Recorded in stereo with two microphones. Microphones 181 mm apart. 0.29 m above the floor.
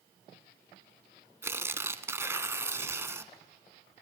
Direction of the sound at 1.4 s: 15° right (ahead or behind).